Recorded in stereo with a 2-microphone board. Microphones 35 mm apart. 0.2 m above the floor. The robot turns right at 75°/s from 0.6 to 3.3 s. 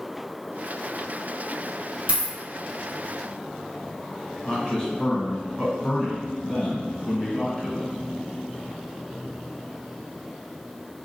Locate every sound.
2.1 s a dropped coin: 50° right (ahead or behind), 2.0 m; by 2.3 s 30° right (ahead or behind), 2.0 m
4.5 s a man speaking: 25° left (ahead or behind), 1.6 m